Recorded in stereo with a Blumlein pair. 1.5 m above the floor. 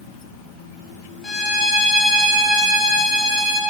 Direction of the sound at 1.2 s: 15° left.